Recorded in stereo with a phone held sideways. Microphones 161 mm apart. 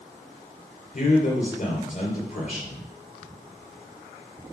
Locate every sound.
0.9 s a man speaking: 50° left (ahead or behind), 3.5 m